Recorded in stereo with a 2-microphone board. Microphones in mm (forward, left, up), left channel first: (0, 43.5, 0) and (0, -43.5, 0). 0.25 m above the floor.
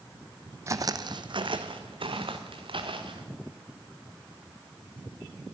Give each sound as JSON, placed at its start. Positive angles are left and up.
{"t": 0.7, "sound": "footsteps", "side_deg": -35, "distance_m": 0.5}